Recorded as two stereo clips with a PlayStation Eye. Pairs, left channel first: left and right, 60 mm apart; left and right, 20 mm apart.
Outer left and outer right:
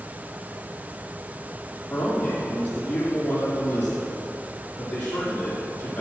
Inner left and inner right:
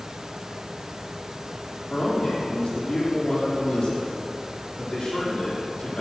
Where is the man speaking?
25° left (ahead or behind), 5 m.